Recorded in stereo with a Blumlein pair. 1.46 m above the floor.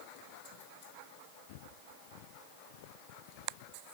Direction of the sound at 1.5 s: 50° left.